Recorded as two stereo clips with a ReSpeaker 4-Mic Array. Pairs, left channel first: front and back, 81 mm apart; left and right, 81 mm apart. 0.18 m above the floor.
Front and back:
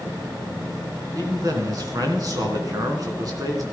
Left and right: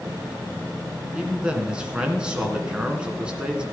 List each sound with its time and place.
1.1 s a man speaking: 165° right, 2.5 m